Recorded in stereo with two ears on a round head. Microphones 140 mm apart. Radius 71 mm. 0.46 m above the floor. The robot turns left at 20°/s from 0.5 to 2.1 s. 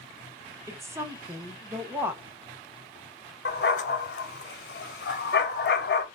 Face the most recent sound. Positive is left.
turn(degrees=70)  # may be behind; listen again after turning